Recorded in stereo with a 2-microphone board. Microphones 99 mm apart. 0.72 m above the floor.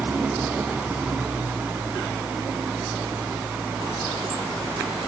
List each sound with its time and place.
0.0 s an engine running: 15° right (ahead or behind)